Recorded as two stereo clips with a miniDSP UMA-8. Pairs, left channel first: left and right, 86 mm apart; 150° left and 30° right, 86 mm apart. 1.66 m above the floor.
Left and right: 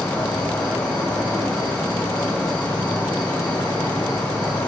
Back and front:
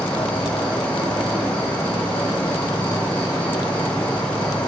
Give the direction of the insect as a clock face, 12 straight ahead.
8 o'clock.